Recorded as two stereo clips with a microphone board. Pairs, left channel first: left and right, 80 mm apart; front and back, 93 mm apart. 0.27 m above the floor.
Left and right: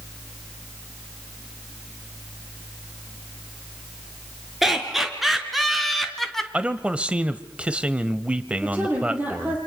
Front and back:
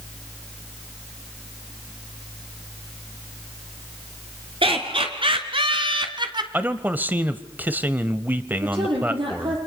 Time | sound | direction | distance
4.6 | laughter | straight behind | 4.5 m
6.5 | a man speaking | 145° right | 1.0 m
8.6 | a woman speaking | 160° right | 6.5 m